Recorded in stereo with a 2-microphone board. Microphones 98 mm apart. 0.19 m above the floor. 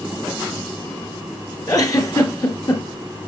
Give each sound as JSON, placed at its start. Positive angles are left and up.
{"t": 1.7, "sound": "a giggle", "side_deg": 40, "distance_m": 1.4}